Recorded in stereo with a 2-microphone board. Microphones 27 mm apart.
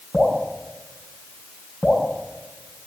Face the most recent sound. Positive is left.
turn(degrees=45)  # may be behind; listen again after turning